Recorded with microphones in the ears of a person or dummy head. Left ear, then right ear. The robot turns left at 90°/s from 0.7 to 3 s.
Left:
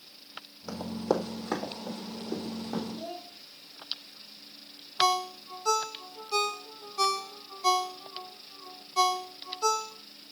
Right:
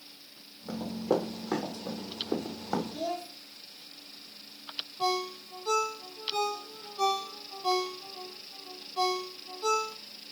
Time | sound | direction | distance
0.7 | running footsteps | 60° left (ahead or behind) | 3 m
2.9 | a child speaking | 75° right (ahead or behind) | 2.5 m
5.0 | a ringtone | 60° left (ahead or behind) | 1.4 m